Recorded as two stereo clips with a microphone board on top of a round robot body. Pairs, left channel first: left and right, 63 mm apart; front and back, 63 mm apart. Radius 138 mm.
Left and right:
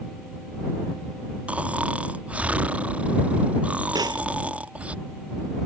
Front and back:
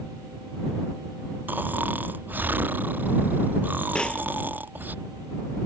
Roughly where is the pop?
Right.